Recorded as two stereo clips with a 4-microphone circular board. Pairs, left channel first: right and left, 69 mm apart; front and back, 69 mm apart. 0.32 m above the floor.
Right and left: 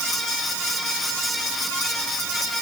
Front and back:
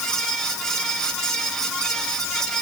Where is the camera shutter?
I don't hear a camera shutter.